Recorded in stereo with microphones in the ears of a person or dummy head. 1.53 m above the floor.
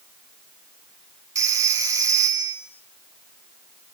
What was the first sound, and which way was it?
A phone ringing, 20° right (ahead or behind).